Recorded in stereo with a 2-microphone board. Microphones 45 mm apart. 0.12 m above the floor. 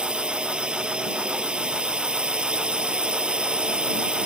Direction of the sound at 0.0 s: 20° right (ahead or behind).